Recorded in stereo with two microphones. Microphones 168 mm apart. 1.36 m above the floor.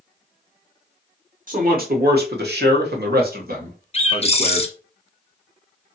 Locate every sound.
1.5 s a man speaking: 55° right (ahead or behind), 1.0 m; by 4.7 s 40° right (ahead or behind), 1.4 m
3.9 s a bird: 40° left (ahead or behind), 0.5 m